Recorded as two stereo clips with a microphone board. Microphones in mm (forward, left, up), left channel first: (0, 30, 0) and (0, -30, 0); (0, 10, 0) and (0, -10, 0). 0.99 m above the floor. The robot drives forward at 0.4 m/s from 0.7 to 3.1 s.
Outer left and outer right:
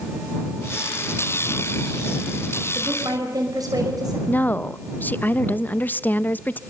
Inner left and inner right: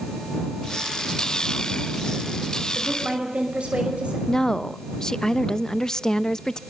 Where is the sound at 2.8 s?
80° right, 5.5 m; by 4.2 s 85° right, 5.5 m.